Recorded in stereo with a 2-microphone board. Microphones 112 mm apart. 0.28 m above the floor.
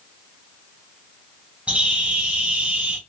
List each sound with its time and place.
1.7 s a bird: 10° right (ahead or behind), 1.5 m